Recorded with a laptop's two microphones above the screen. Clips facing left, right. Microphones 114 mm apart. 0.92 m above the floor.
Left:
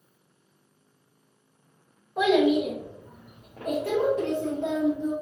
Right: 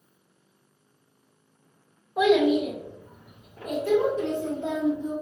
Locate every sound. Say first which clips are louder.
2.2 s a child speaking: right 1 dB; 5° right (ahead or behind), 0.7 m; by 5.1 s 80° left, 1.4 m